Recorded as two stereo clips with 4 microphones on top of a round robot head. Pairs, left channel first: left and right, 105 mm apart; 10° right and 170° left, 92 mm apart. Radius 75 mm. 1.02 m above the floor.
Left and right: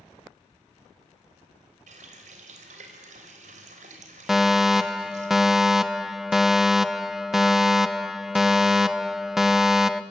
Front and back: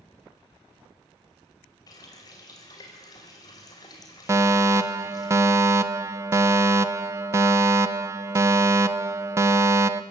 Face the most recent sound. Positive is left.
turn(degrees=-175)